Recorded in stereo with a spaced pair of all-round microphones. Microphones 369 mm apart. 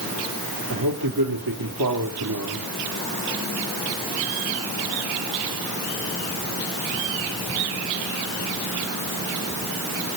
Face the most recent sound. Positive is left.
turn(degrees=-50)  # may be behind; listen again after turning